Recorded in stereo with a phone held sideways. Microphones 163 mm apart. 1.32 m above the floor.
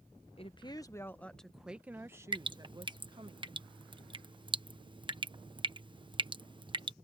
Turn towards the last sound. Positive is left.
turn(degrees=-30)  # may be behind; listen again after turning